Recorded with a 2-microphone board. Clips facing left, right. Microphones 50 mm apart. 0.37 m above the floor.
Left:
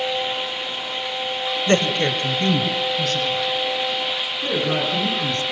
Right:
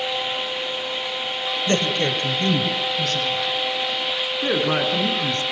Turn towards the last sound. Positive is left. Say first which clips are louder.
# right 1 dB
turn(degrees=-45)  # may be behind; listen again after turning